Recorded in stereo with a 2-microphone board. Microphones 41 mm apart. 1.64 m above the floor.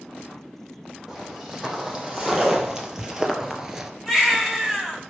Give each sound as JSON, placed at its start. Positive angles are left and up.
{"t": 1.1, "sound": "footsteps", "side_deg": -10, "distance_m": 5.0}
{"t": 4.1, "sound": "a baby crying", "side_deg": -10, "distance_m": 4.5}